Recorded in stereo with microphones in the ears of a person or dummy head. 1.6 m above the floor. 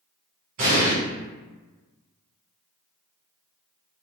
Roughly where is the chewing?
No chewing in this recording.